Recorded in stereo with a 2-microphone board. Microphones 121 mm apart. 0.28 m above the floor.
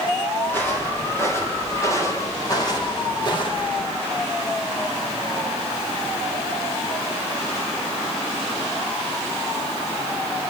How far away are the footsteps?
About 9 m.